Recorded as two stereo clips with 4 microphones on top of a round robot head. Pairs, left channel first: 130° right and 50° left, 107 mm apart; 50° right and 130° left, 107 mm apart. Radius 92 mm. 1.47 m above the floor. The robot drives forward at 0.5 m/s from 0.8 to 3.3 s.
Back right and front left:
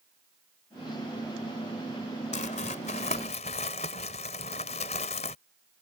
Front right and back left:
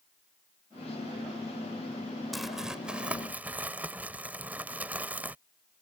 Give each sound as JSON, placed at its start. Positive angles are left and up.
{"t": 2.3, "sound": "crumpling", "azimuth_deg": -140}